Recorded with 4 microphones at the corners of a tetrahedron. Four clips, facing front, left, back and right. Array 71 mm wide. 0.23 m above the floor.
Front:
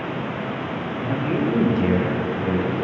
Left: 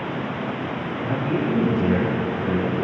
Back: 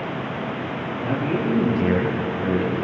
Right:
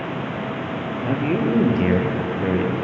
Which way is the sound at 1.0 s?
100° right.